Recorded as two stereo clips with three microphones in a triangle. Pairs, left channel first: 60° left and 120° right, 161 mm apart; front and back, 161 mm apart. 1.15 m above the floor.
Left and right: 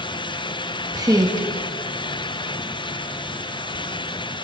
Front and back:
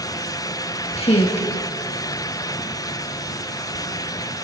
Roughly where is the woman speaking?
Ahead right.